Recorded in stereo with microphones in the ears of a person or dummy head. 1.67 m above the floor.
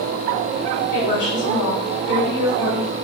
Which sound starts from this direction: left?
A woman speaking, at 0.9 s.